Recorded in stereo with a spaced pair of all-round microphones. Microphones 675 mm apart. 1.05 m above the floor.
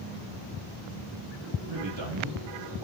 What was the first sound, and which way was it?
A man speaking, 45° right (ahead or behind).